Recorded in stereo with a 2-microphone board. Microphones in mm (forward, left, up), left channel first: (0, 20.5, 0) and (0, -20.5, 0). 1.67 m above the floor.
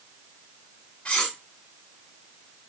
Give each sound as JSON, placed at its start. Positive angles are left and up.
{"t": 1.1, "sound": "cutlery clinking", "side_deg": 25, "distance_m": 1.6}